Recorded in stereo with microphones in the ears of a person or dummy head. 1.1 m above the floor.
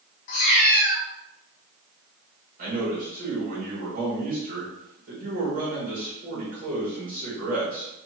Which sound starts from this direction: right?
A man speaking, at 2.6 s.